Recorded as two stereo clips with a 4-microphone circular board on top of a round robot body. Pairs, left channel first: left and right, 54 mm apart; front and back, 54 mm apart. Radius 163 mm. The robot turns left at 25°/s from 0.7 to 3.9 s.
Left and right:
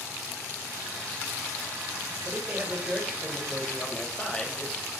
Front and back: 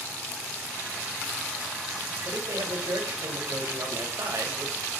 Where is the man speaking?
150° right, 4 m; by 4.9 s 165° left, 4 m.